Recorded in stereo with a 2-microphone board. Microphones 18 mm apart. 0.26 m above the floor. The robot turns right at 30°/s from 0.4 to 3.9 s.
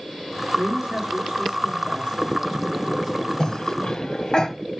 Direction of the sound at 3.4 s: 35° left (ahead or behind).